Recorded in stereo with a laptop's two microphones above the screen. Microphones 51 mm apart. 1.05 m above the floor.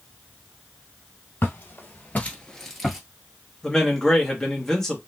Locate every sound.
1.4 s footsteps: 50° left (ahead or behind), 1.7 m; by 3.0 s 5° right (ahead or behind), 1.2 m
3.6 s a man speaking: 10° left (ahead or behind), 1.3 m